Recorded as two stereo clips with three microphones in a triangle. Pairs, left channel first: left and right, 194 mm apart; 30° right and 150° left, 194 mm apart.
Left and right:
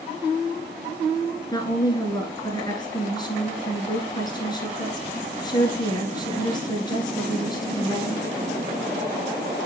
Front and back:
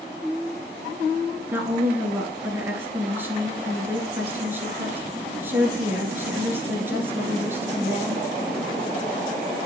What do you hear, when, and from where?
1.5 s a woman speaking: 90° left, 1.6 m